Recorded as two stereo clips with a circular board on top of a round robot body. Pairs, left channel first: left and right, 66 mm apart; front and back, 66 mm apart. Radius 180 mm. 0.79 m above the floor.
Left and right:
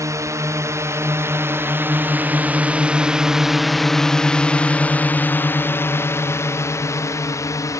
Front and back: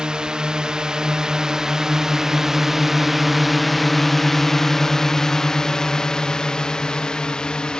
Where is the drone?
105° right; by 7.8 s 75° left.